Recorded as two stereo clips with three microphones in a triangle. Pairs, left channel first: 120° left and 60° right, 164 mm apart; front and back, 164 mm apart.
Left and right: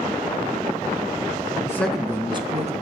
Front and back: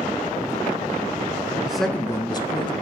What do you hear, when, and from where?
1.6 s a man speaking: 110° left, 1.1 m; by 2.7 s 40° right, 1.6 m